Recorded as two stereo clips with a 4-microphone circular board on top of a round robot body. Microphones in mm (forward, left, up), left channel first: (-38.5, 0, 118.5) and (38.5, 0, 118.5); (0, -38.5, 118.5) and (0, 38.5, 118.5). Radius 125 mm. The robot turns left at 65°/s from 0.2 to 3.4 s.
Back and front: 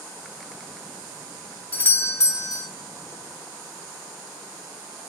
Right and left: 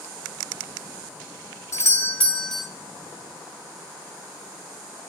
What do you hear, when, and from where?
1.7 s a doorbell: 120° right, 0.9 m; by 2.7 s straight behind, 0.9 m